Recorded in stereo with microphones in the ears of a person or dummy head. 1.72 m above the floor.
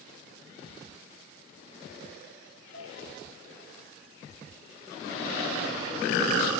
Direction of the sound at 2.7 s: 80° left.